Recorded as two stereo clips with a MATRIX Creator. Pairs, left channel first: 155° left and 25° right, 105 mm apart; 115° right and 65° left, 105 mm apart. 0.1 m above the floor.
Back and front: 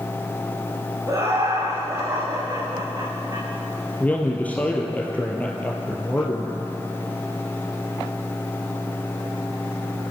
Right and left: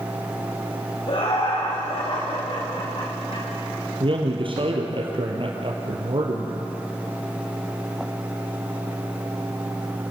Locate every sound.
1.1 s laughter: 80° right, 9 m; by 3.5 s 75° right, 10 m
4.0 s a man speaking: 85° left, 3 m